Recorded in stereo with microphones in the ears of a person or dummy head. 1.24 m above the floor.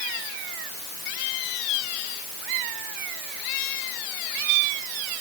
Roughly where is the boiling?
I don't hear boiling.